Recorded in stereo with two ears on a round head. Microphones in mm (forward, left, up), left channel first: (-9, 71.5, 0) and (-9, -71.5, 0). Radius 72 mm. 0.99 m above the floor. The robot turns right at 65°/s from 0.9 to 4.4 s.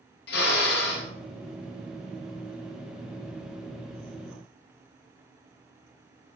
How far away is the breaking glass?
I don't hear breaking glass.